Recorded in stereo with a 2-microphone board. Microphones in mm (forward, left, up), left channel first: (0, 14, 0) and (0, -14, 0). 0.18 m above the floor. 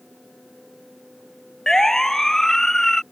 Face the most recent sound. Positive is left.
turn(degrees=10)  # may be behind; listen again after turning